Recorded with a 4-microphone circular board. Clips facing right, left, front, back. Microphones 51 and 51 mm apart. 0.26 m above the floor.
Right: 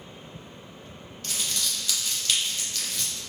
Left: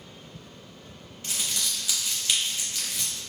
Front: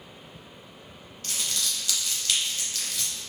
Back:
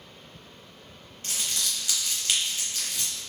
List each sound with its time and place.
1.2 s crumpling: 145° left, 1.0 m